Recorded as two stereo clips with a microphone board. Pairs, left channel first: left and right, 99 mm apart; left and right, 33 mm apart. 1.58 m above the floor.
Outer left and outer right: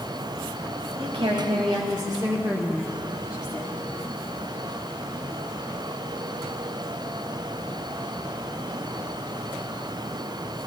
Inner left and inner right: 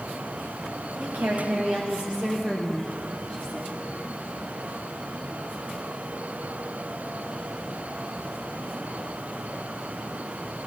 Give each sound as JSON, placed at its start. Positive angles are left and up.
{"t": 1.0, "sound": "a woman speaking", "side_deg": -70, "distance_m": 1.7}